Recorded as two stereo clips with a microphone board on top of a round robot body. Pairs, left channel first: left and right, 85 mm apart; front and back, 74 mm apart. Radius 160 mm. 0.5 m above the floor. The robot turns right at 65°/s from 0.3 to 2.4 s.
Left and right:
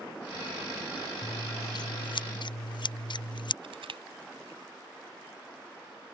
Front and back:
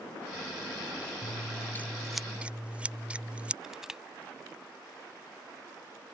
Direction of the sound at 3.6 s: 100° right.